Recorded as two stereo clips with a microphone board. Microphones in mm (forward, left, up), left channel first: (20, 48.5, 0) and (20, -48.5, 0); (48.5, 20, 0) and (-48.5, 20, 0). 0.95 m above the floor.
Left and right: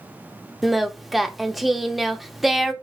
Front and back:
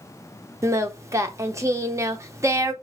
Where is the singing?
175° right, 0.6 m.